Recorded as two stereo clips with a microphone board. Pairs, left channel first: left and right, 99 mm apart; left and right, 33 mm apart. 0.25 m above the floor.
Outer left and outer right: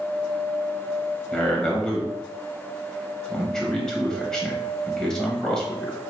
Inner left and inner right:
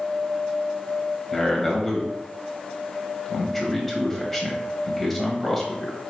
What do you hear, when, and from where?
1.3 s a man speaking: 5° left (ahead or behind), 0.9 m